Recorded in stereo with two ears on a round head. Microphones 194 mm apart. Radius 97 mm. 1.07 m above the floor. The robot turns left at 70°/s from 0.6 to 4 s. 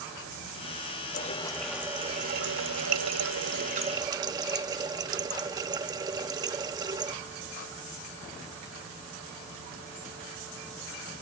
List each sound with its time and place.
1.1 s a running tap: 40° left; by 7.2 s 160° right